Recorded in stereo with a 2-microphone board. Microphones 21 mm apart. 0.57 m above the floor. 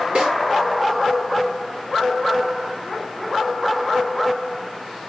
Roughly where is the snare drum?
Right.